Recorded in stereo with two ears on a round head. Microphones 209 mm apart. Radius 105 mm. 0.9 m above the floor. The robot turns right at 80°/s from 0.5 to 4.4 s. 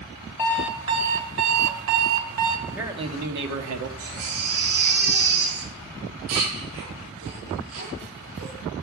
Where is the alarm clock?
170° left, 1.5 m; by 2.6 s 25° right, 1.5 m.